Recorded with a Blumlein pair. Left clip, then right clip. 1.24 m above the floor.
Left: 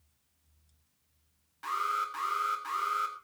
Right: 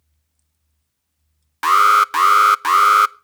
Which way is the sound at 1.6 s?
40° right.